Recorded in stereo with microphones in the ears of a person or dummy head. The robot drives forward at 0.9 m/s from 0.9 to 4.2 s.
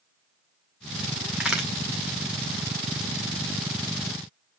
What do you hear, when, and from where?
1.4 s a crack: 5° right (ahead or behind), 1.0 m